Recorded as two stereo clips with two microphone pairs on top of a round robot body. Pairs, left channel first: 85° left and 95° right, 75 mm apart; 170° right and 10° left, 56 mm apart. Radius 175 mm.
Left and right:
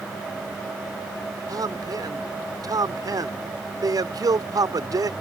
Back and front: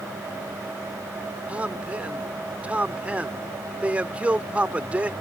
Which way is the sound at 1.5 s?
60° right.